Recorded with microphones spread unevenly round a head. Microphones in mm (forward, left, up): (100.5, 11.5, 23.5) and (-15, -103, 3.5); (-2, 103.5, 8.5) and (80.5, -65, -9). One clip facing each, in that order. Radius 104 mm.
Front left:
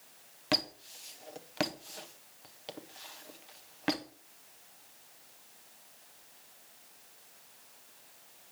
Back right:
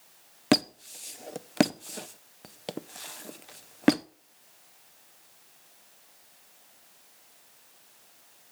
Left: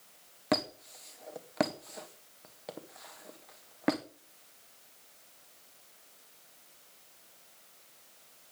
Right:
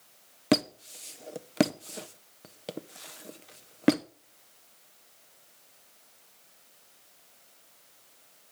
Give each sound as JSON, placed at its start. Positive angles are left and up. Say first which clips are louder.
{"t": 0.5, "sound": "a squeak", "louder": "back right 10 dB, right 6 dB", "azimuth_deg": -120, "distance_m": 0.7}